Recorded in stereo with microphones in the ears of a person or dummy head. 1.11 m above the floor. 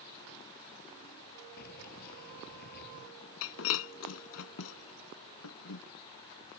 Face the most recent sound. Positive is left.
turn(degrees=80)